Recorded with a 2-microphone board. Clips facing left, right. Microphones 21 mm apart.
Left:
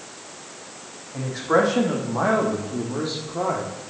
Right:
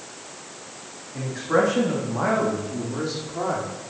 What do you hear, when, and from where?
1.1 s a man speaking: 70° left (ahead or behind), 4 m; by 3.7 s 40° left (ahead or behind), 2.5 m